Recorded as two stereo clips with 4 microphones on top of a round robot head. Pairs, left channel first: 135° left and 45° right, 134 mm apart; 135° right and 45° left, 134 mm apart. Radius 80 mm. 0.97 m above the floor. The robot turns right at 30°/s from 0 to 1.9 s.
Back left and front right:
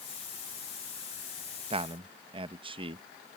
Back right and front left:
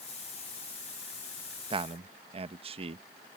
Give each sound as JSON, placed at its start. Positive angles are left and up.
{"t": 1.7, "sound": "a man speaking", "azimuth_deg": -5}